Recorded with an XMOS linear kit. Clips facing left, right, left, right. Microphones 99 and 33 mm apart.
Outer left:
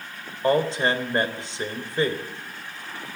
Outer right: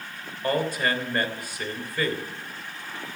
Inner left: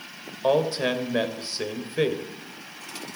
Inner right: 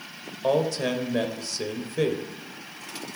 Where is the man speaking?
25° left (ahead or behind), 3 m.